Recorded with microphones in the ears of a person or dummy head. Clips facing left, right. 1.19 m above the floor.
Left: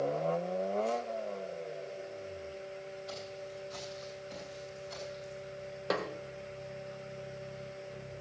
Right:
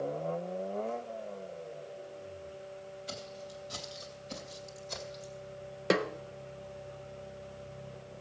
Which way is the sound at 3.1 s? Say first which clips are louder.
Left 1 dB; 50° right (ahead or behind).